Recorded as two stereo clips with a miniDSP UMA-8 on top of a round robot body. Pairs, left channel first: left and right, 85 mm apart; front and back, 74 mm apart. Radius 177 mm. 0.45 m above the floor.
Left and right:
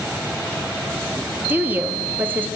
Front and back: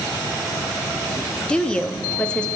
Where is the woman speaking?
60° right, 1.1 m.